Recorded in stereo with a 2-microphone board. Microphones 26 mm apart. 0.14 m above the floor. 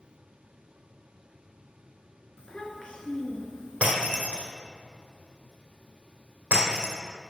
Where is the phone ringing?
I don't hear a phone ringing.